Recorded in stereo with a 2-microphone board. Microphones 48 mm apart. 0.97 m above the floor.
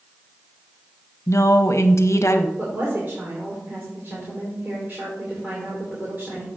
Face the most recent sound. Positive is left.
turn(degrees=-40)  # may be behind; listen again after turning